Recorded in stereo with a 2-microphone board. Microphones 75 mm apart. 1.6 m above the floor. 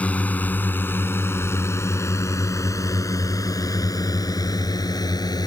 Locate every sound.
0.0 s a drone: 20° left (ahead or behind); by 5.5 s 60° left (ahead or behind)